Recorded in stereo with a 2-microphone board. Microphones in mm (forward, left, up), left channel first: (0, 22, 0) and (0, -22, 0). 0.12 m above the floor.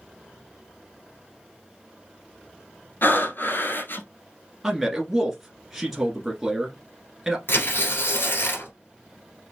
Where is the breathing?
55° left (ahead or behind), 1.2 m.